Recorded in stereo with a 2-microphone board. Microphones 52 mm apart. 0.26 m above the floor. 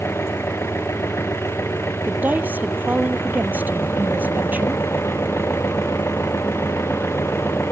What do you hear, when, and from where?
0.0 s an engine running: 50° left (ahead or behind)
2.1 s a woman speaking: 35° right (ahead or behind)